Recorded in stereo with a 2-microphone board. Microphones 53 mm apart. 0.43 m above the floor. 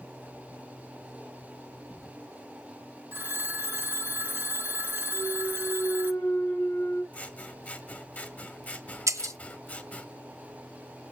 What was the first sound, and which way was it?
A phone ringing, 40° right (ahead or behind).